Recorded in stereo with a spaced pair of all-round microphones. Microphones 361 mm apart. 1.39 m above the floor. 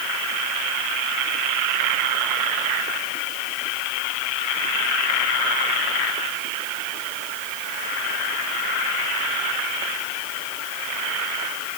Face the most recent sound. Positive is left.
No sound to turn to.